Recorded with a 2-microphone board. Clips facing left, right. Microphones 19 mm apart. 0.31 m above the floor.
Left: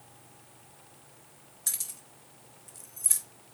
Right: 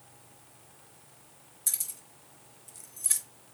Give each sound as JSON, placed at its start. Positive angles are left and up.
{"t": 1.7, "sound": "keys jangling", "side_deg": 30, "distance_m": 0.9}